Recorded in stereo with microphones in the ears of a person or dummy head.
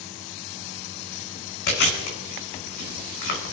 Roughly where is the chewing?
Left.